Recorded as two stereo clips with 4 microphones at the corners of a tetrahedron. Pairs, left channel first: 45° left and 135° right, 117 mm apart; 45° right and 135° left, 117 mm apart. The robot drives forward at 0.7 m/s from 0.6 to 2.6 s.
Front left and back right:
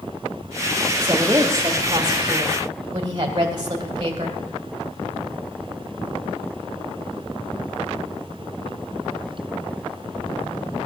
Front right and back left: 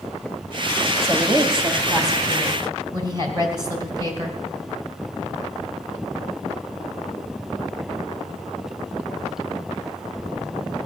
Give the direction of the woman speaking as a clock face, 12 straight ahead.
6 o'clock.